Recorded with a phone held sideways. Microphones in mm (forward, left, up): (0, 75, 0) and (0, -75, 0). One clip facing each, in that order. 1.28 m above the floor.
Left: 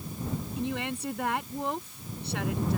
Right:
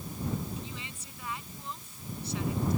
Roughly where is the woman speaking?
Left.